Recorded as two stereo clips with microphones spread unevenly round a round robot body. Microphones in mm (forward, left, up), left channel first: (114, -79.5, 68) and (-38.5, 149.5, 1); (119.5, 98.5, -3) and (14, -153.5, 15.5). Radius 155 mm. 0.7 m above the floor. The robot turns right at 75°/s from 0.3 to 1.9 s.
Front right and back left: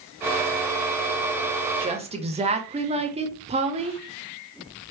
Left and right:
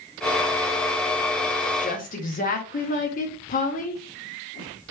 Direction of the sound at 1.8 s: 90° left.